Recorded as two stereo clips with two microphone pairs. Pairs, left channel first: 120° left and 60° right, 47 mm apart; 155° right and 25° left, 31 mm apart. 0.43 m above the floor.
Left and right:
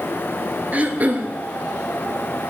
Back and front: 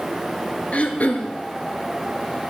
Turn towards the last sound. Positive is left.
turn(degrees=-115)